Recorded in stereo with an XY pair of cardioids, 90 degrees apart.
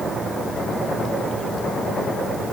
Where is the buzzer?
No buzzer in this recording.